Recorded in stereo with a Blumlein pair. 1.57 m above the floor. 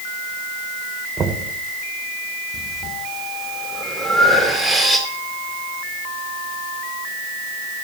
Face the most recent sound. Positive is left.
turn(degrees=5)